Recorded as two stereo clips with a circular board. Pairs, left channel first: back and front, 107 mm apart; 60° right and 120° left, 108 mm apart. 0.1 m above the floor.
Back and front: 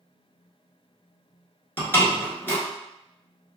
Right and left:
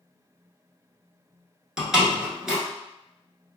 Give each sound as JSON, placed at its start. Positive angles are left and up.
{"t": 1.8, "sound": "a door slam", "azimuth_deg": -165, "distance_m": 1.2}